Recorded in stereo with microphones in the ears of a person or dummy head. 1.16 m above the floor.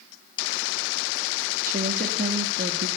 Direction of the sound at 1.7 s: 45° right (ahead or behind).